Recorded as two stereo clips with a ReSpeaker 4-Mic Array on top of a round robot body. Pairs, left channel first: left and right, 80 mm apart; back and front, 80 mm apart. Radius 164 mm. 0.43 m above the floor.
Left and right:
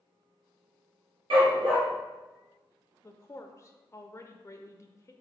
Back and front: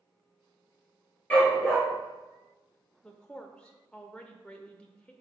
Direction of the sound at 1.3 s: 105° right.